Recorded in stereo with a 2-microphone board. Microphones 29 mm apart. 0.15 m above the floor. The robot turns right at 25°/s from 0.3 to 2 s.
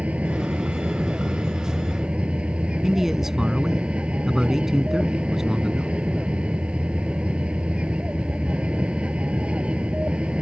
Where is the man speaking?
15° right (ahead or behind).